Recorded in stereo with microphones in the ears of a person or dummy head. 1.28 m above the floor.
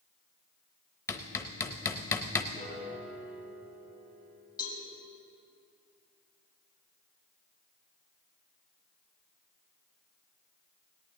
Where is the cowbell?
20° left (ahead or behind), 3.5 m.